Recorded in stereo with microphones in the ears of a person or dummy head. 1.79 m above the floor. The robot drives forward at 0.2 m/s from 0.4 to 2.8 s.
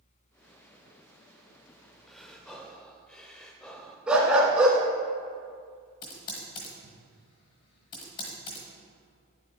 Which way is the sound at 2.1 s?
Centre (ahead or behind).